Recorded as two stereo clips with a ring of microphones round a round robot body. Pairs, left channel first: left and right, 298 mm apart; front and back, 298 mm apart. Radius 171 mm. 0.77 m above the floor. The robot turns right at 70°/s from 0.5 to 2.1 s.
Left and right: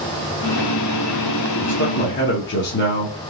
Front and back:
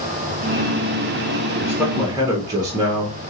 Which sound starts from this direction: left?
A man speaking, at 1.6 s.